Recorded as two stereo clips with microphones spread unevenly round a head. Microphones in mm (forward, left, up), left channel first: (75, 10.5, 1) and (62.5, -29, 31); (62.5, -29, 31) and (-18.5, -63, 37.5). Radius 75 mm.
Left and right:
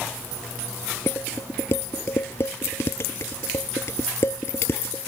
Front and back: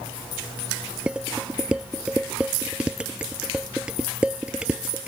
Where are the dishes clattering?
120° left.